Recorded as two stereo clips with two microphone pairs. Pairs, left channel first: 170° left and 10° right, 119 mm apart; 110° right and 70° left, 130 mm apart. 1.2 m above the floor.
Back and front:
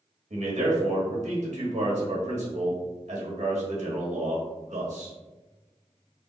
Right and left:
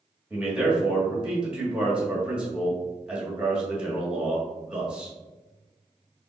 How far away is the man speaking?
About 1.7 m.